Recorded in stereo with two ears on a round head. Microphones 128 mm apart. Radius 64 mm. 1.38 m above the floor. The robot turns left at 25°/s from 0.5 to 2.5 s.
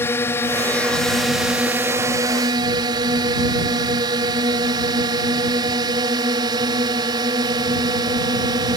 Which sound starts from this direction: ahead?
A drone, at 0.0 s.